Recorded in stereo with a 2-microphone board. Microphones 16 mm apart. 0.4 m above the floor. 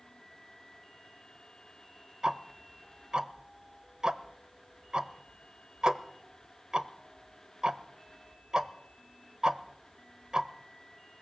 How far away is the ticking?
About 0.7 m.